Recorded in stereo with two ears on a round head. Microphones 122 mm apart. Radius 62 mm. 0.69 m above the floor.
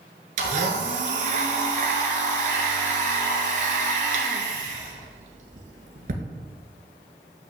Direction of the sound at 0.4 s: 65° right (ahead or behind).